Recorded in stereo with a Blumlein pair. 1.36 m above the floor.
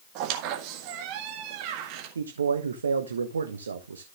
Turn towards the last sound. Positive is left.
turn(degrees=-70)